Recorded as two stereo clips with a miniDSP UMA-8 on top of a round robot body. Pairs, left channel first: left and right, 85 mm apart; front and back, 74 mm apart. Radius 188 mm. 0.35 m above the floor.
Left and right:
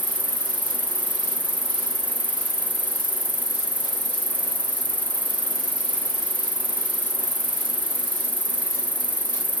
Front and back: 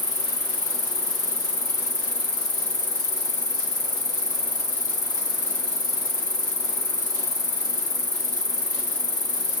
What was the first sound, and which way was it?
An insect, 15° left.